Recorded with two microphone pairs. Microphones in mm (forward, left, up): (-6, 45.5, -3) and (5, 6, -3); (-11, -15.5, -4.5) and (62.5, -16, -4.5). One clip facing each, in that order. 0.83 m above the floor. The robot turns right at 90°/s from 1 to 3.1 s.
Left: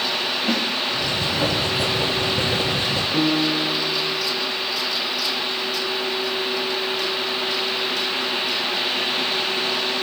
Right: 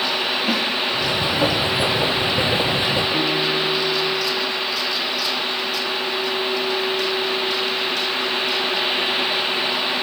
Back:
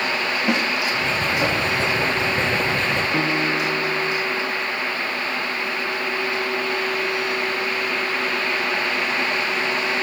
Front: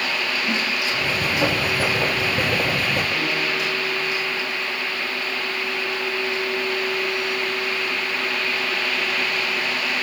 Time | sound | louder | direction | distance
0.5 | a snare drum | even, back 5 dB | 160° right | 1.0 m
3.1 | a piano | even, back 3 dB | 170° right | 6 m